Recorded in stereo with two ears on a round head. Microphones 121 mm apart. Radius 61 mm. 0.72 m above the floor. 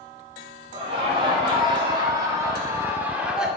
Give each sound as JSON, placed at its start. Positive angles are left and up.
{"t": 0.7, "sound": "laughter", "side_deg": -45, "distance_m": 4.0}